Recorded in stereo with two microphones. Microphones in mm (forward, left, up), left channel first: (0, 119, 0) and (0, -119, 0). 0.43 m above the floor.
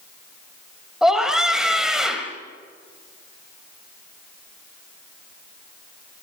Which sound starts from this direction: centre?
A scream, at 1.0 s.